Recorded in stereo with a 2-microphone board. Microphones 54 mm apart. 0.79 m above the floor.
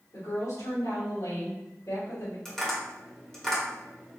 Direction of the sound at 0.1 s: 75° left (ahead or behind).